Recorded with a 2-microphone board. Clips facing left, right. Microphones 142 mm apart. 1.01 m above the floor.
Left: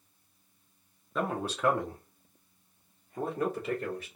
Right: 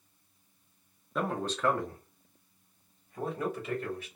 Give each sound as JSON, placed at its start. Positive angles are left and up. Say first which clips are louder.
{"t": 1.1, "sound": "a man speaking", "louder": "even", "side_deg": -5, "distance_m": 0.8}